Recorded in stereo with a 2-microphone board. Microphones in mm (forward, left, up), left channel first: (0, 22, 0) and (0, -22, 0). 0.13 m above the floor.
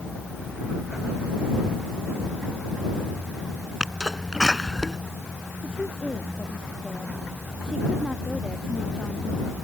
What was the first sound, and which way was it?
A sneeze, 10° right (ahead or behind).